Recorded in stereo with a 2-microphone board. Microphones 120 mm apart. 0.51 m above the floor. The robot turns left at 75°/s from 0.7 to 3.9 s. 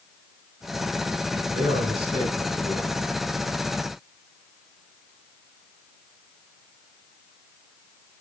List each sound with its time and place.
1.5 s a man speaking: 95° right, 4 m; by 3.0 s 155° left, 4 m